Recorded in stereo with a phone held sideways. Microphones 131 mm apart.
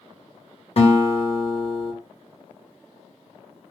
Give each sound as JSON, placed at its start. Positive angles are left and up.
{"t": 0.8, "sound": "a guitar", "side_deg": 50, "distance_m": 1.0}